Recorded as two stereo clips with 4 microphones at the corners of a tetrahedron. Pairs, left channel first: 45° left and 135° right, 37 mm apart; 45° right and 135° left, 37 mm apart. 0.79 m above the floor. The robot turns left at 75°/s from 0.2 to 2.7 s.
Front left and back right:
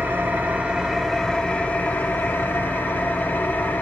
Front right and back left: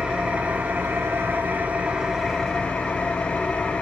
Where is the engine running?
155° right, 1.3 m; by 3.8 s 15° left, 1.3 m.